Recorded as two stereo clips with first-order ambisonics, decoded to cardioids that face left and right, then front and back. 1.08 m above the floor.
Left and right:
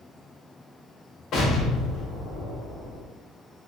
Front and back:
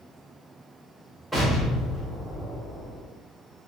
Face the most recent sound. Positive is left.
turn(degrees=95)